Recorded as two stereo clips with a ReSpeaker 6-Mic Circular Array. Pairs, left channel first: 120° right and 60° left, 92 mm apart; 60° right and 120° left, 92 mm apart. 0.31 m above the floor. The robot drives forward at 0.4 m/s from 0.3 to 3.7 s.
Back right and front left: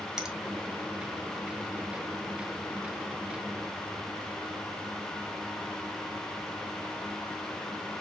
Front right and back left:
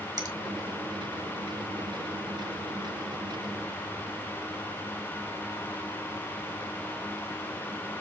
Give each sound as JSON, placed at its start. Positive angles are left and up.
{"t": 0.2, "sound": "a finger snap", "azimuth_deg": 140, "distance_m": 1.4}